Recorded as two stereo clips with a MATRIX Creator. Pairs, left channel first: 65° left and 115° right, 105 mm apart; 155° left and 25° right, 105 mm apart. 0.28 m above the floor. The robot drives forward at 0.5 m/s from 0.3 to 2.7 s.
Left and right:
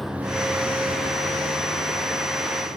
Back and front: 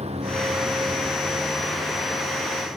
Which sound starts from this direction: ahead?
A vehicle, at 0.0 s.